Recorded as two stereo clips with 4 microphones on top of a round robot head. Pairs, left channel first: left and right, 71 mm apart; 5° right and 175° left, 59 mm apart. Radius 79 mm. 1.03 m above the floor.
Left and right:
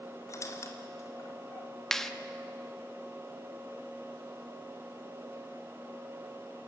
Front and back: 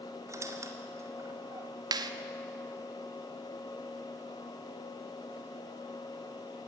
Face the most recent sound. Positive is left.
turn(degrees=175)